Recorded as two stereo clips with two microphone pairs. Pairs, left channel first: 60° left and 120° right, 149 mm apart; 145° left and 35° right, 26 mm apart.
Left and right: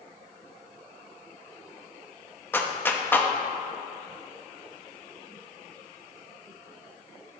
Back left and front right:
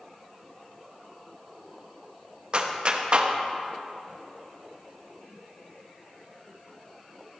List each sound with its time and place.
2.5 s a clap: 15° right, 0.6 m